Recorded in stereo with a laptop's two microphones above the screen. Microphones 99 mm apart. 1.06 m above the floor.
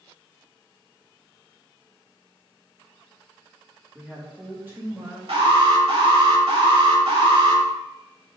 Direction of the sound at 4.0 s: 5° right (ahead or behind).